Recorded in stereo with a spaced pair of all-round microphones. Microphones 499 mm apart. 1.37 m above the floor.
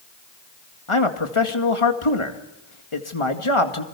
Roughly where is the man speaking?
Left.